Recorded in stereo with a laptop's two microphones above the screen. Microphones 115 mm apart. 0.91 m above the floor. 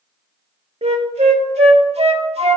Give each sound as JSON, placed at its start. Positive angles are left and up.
{"t": 0.8, "sound": "a flute", "side_deg": -75, "distance_m": 0.7}